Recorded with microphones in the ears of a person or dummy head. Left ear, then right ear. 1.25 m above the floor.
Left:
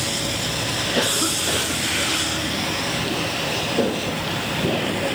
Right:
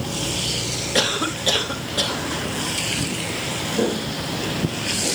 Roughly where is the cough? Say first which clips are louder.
Right 2 dB; right.